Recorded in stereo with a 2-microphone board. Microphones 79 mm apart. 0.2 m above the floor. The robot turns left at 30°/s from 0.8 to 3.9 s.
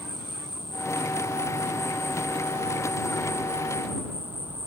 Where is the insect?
70° left; by 4.7 s 25° right.